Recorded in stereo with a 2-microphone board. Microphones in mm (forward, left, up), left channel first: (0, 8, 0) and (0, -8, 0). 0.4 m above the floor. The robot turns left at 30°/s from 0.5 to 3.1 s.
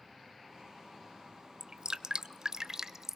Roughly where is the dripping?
Right.